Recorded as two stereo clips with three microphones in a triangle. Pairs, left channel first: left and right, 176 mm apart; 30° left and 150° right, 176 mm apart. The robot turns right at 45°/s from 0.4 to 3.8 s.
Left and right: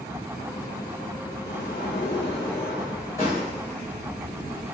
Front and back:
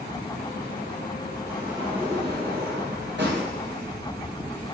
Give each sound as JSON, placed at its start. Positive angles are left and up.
{"t": 1.5, "sound": "a sliding door", "azimuth_deg": 120, "distance_m": 9.0}